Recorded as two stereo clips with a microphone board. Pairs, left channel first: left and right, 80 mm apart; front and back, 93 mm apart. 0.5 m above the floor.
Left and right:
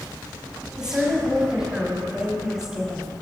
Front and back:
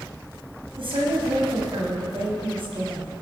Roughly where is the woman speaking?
Behind.